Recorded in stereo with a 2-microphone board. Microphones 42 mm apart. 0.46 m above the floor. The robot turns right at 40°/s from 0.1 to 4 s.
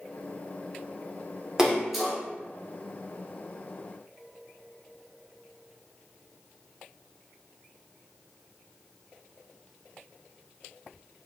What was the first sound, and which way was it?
A splash, 10° right (ahead or behind).